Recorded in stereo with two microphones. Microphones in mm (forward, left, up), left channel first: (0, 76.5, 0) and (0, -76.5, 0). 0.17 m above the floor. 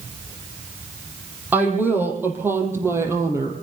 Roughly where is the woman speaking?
Centre.